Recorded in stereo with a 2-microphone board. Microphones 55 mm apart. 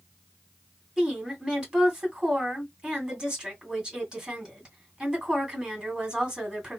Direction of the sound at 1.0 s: 15° right (ahead or behind).